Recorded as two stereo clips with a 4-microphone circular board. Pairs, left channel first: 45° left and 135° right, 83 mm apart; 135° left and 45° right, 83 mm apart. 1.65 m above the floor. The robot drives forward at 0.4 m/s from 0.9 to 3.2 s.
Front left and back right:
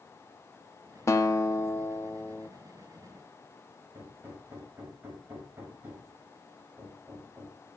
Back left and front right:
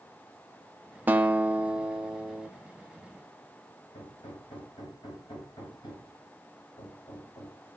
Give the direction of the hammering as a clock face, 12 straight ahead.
7 o'clock.